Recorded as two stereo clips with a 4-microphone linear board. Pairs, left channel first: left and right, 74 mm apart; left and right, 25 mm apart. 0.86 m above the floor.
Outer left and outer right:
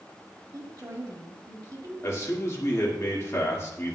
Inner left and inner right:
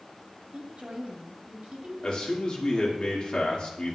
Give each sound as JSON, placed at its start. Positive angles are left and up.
{"t": 0.5, "sound": "a woman speaking", "side_deg": -60, "distance_m": 1.9}
{"t": 2.0, "sound": "a man speaking", "side_deg": 40, "distance_m": 2.0}